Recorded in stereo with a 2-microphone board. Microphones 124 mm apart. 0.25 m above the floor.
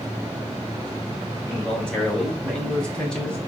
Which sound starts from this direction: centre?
A man speaking, at 1.5 s.